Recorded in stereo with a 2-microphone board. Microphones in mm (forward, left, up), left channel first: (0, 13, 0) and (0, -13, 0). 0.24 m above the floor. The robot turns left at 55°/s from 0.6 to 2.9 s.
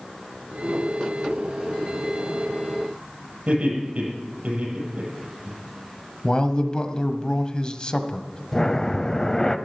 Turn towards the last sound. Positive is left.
turn(degrees=20)  # may be behind; listen again after turning